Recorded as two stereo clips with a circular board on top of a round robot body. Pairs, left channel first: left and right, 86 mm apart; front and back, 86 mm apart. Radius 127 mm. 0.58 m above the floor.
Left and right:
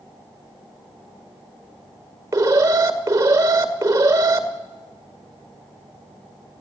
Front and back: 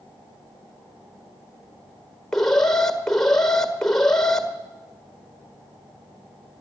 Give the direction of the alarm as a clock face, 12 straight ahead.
3 o'clock.